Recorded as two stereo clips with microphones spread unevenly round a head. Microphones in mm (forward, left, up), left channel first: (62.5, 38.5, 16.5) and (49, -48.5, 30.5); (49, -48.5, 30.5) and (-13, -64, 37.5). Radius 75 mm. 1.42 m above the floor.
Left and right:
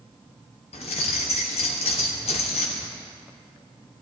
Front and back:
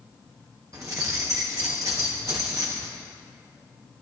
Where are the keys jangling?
130° left, 1.2 m.